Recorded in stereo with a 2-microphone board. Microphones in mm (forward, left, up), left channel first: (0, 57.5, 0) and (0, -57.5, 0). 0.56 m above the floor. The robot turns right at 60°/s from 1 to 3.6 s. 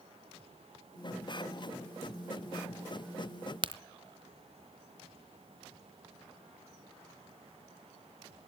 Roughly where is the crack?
Right.